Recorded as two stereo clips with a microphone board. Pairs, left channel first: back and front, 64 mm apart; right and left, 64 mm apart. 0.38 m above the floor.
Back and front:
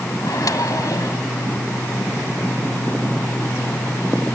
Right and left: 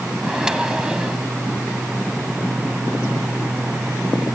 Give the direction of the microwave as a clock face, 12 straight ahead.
6 o'clock.